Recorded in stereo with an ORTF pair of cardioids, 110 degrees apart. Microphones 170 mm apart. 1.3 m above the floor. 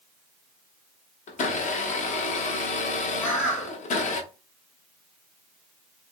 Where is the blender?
45° left, 0.8 m.